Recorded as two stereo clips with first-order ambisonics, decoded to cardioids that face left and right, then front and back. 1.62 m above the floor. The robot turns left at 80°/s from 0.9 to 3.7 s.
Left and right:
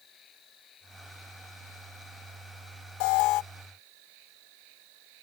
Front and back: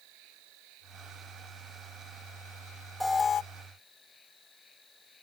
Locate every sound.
0.0 s an insect: 150° left; by 5.2 s 75° right
3.0 s an alarm: 90° left; by 3.4 s 55° left